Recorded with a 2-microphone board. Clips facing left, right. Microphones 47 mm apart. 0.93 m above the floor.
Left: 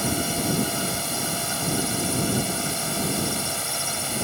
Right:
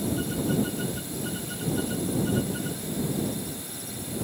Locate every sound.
0.0 s a drone: 75° left (ahead or behind)